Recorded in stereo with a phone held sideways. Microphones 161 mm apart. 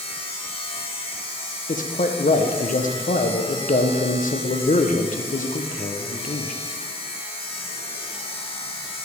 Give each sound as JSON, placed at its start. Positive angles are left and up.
{"t": 0.0, "sound": "a machine running", "side_deg": 35, "distance_m": 0.9}
{"t": 1.7, "sound": "a man speaking", "side_deg": 55, "distance_m": 0.6}